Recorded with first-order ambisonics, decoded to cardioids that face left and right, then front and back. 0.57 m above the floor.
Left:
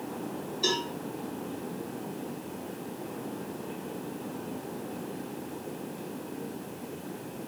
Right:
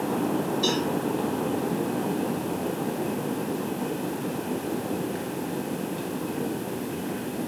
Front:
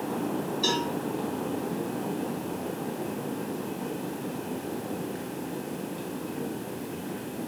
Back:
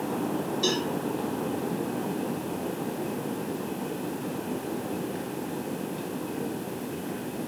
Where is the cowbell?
155° right, 1.7 m.